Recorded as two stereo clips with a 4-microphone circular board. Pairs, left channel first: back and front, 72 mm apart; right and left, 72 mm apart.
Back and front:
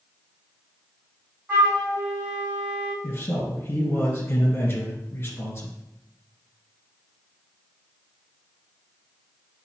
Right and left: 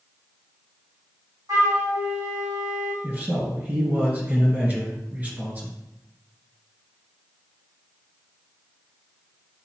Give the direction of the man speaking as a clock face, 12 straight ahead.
7 o'clock.